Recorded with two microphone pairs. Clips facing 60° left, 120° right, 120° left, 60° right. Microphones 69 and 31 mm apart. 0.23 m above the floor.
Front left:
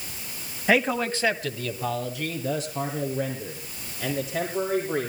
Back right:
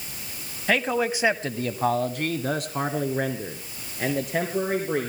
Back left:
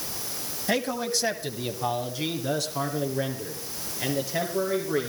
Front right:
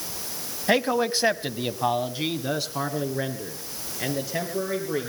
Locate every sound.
0.7 s a man speaking: 20° right, 1.2 m; by 5.1 s 140° right, 4.5 m